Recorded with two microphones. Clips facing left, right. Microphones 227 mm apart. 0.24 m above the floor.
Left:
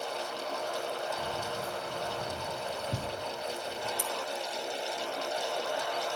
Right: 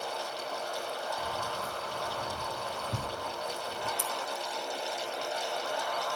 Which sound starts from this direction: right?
Scissors, at 4.0 s.